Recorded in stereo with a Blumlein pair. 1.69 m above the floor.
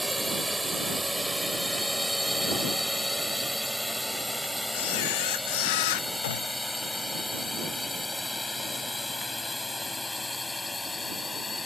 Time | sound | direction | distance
0.0 | a drone | 5° right | ?
4.7 | a camera shutter | 50° left | ?
6.2 | a gunshot | 60° left | ?